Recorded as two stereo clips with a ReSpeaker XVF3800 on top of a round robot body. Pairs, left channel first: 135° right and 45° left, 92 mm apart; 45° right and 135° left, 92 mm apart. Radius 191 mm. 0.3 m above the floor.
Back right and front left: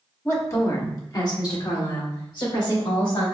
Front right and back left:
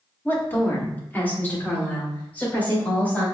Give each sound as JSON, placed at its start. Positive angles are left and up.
{"t": 0.2, "sound": "a woman speaking", "azimuth_deg": -95, "distance_m": 1.5}